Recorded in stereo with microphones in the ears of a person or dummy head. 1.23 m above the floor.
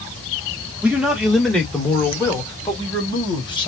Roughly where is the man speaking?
Centre.